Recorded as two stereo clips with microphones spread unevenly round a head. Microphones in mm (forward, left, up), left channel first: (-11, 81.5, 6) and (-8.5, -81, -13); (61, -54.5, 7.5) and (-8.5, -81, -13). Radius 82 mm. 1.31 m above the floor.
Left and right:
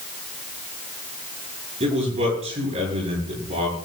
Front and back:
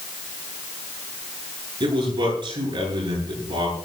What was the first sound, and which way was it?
A man speaking, 145° right.